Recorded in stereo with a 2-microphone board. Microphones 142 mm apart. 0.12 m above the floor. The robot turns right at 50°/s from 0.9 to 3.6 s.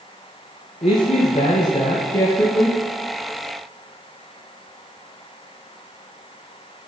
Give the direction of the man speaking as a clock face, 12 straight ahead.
9 o'clock.